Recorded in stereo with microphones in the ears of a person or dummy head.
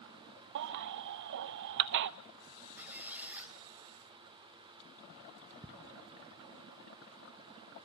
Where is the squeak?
10° right (ahead or behind), 2.5 m.